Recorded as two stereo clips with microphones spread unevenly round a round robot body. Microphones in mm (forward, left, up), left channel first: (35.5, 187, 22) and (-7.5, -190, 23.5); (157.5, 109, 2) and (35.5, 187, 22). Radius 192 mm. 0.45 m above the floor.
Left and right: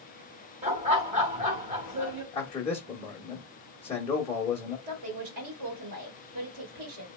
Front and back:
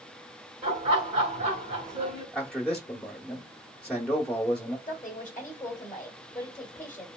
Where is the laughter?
165° right, 1.8 m.